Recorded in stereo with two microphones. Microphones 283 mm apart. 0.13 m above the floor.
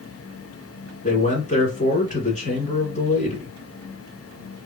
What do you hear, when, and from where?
1.0 s a man speaking: 25° left (ahead or behind), 1.4 m